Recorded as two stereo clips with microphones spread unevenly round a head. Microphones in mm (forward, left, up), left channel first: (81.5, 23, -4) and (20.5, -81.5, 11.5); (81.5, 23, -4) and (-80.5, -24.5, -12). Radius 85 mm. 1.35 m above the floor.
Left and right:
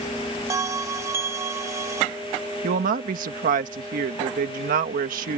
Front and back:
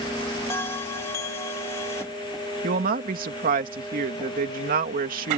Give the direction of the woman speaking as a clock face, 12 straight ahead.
4 o'clock.